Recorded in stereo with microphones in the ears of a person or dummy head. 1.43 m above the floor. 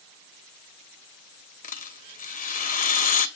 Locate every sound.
1.6 s a rattle: 40° left (ahead or behind), 0.8 m